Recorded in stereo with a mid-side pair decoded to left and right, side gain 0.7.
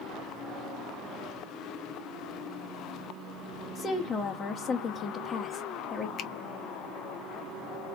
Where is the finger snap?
45° left, 0.8 m.